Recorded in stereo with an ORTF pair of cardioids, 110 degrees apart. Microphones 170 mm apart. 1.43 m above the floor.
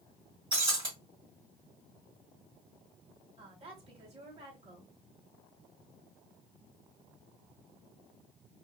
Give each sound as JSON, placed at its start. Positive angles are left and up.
{"t": 0.5, "sound": "breaking glass", "azimuth_deg": -30, "distance_m": 1.6}
{"t": 3.4, "sound": "a woman speaking", "azimuth_deg": -35, "distance_m": 1.7}